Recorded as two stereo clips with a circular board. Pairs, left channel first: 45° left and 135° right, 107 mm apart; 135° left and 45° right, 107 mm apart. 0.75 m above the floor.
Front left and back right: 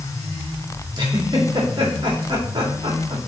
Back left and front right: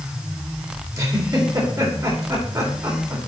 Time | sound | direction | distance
0.9 | a giggle | 95° right | 2 m